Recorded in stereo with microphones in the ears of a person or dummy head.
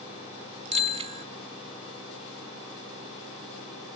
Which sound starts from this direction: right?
A bicycle bell, at 0.7 s.